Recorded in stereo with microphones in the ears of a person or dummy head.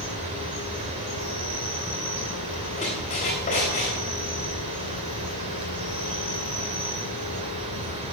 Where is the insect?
30° right (ahead or behind), 1.7 m.